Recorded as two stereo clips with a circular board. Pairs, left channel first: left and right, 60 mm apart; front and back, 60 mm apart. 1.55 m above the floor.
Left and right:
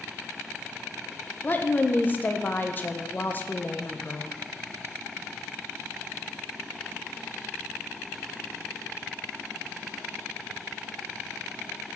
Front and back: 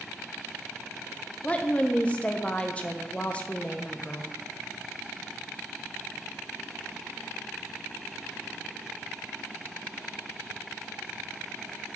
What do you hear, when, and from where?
1.4 s a woman speaking: 55° left, 0.6 m